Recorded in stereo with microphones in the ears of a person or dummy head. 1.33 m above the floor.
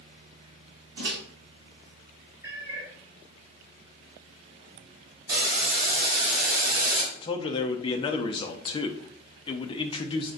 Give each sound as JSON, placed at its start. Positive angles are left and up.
{"t": 1.0, "sound": "a microwave", "side_deg": -75, "distance_m": 1.8}
{"t": 2.4, "sound": "a cat meowing", "side_deg": -15, "distance_m": 2.5}
{"t": 5.3, "sound": "boiling", "side_deg": -65, "distance_m": 2.0}
{"t": 7.1, "sound": "a man speaking", "side_deg": 30, "distance_m": 0.6}